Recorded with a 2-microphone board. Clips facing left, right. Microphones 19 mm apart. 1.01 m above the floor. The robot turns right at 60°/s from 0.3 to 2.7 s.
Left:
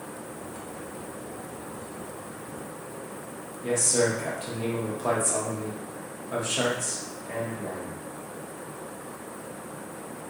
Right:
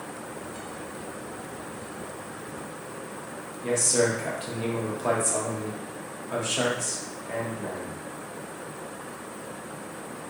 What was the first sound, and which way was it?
A man speaking, 25° right (ahead or behind).